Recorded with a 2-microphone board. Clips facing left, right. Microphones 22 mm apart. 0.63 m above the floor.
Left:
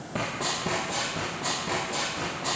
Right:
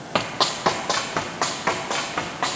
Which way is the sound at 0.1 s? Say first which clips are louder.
Right 7 dB; 60° right (ahead or behind).